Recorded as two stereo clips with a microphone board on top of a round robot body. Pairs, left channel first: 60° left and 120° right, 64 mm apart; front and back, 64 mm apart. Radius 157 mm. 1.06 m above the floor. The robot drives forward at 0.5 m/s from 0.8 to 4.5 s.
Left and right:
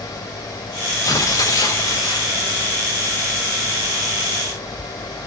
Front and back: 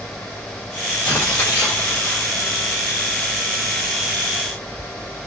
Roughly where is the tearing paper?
Ahead left.